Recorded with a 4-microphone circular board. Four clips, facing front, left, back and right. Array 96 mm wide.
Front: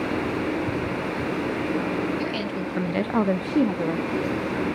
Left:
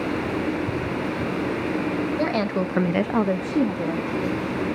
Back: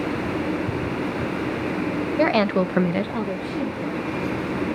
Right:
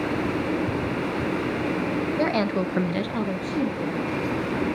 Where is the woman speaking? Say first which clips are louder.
Right 2 dB, back 9 dB; straight behind, 1.2 m; by 4.5 s 20° left, 2 m.